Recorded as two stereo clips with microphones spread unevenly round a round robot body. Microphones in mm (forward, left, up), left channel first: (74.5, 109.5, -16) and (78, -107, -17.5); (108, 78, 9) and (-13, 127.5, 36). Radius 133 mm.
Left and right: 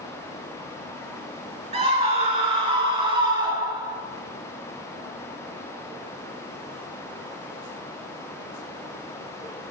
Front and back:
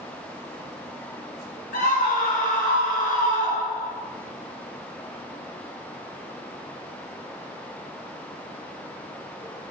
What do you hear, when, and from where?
1.7 s a scream: 25° right, 5.5 m; by 4.0 s 20° right, 6 m